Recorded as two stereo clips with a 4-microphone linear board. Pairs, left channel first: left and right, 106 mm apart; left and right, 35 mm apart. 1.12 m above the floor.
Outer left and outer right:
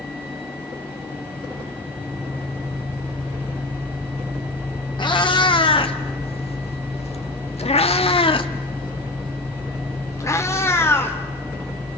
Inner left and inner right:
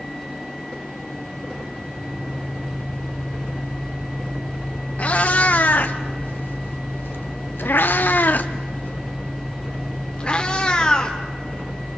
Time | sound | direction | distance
5.0 | a cat meowing | 45° left (ahead or behind) | 1.9 m